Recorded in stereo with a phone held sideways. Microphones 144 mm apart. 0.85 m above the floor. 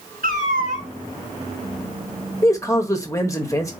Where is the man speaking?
20° left (ahead or behind), 1.2 m.